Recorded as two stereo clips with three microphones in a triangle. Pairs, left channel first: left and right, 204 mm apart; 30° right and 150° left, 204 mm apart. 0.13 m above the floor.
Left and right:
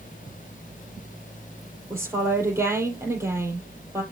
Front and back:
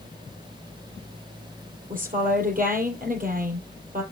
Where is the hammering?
No hammering in this recording.